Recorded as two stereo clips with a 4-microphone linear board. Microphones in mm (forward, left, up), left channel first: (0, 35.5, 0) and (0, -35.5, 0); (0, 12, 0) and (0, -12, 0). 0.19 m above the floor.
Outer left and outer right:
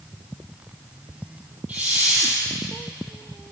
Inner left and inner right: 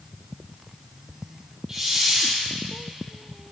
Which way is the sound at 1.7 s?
25° right (ahead or behind).